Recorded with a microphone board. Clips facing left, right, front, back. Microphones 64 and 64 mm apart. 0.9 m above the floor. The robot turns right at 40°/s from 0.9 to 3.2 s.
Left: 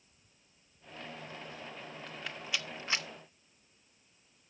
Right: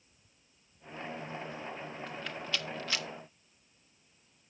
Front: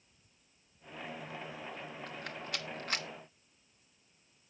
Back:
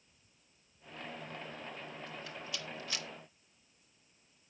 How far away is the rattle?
About 0.7 m.